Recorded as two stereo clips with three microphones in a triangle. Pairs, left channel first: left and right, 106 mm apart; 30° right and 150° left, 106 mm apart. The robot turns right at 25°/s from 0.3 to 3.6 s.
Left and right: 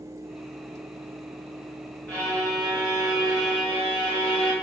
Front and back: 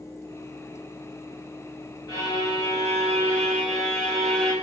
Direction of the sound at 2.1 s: 10° left.